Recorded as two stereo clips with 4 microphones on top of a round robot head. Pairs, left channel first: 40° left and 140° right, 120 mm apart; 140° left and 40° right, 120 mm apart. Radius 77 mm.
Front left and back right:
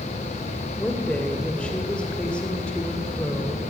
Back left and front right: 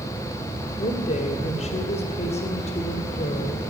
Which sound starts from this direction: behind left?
A woman speaking, at 0.8 s.